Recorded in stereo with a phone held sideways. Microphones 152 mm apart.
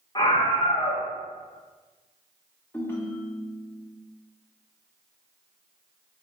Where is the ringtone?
15° left (ahead or behind), 0.5 m.